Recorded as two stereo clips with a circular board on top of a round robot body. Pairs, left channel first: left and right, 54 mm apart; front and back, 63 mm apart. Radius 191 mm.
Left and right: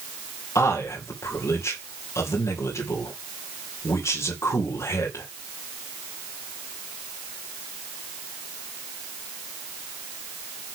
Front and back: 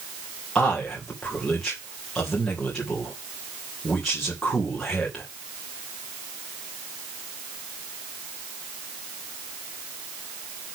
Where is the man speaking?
80° left, 3 m.